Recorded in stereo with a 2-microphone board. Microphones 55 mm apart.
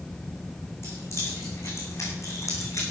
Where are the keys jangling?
50° left (ahead or behind), 7.5 m; by 2.8 s 65° left (ahead or behind), 6.5 m.